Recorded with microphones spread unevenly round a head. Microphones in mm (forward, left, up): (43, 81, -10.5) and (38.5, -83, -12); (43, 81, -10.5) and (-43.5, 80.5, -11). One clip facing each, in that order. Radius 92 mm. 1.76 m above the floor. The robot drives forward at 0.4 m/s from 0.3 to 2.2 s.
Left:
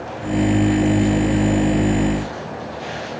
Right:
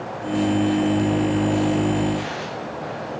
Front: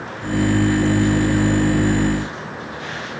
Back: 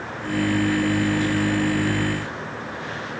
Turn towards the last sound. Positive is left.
No sound to turn to.